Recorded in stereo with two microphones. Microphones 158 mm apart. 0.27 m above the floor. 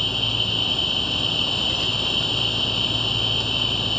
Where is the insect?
Centre (ahead or behind).